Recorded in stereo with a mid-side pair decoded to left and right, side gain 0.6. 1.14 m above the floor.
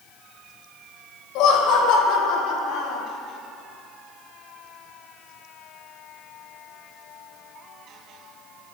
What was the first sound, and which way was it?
Laughter, 70° left.